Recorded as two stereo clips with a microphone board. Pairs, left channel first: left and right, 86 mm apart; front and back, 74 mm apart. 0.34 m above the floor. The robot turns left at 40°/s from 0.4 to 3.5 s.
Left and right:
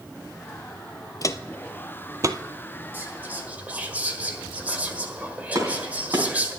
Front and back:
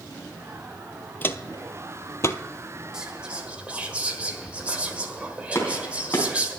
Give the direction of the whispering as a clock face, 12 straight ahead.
4 o'clock.